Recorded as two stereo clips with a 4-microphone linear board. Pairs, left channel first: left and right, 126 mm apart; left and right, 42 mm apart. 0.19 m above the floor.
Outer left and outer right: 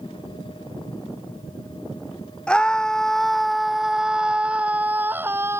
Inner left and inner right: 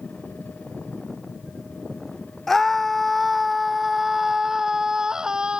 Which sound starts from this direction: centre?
A scream, at 2.5 s.